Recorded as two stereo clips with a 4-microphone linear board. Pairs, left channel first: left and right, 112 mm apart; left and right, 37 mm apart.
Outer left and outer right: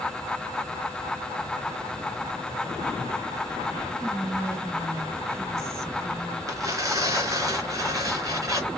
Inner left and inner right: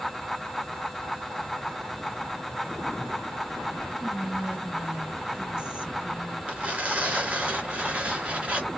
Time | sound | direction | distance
4.0 | whispering | 25° right (ahead or behind) | 1.0 m
6.5 | tearing paper | 35° right (ahead or behind) | 1.3 m